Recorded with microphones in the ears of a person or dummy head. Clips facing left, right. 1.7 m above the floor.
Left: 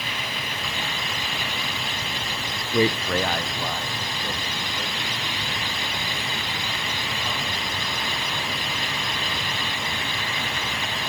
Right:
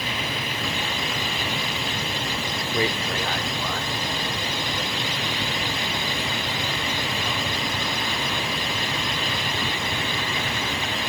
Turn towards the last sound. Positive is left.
turn(degrees=5)  # may be behind; listen again after turning